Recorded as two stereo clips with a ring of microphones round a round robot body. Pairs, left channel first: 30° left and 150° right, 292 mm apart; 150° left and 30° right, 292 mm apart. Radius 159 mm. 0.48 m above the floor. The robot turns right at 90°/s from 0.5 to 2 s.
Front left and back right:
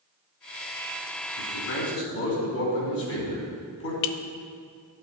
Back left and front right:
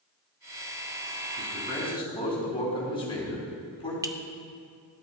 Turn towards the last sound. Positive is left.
turn(degrees=50)